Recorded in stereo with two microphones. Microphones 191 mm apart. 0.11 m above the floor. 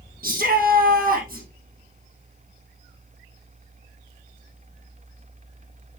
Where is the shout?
50° right (ahead or behind), 3.5 m.